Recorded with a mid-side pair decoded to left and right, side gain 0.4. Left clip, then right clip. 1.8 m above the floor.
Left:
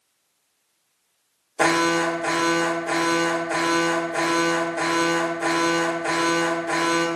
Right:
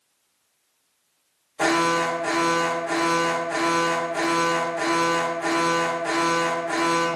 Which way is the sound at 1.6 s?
60° left.